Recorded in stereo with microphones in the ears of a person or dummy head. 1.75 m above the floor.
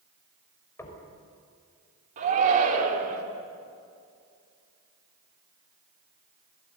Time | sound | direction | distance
0.8 | knocking | 15° left (ahead or behind) | 5.5 m
2.2 | a shout | 45° right (ahead or behind) | 4.5 m